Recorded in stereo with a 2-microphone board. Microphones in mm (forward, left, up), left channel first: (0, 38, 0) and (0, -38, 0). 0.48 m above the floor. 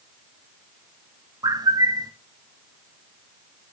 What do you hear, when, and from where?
1.4 s a bird: 60° right (ahead or behind), 0.5 m